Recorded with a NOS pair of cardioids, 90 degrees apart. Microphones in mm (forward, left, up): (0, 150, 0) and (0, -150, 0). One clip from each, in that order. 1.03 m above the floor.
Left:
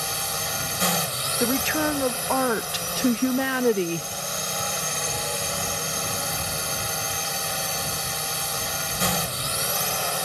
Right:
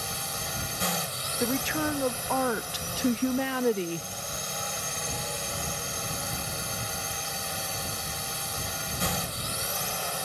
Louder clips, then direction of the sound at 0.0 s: Left 5 dB; 45° left.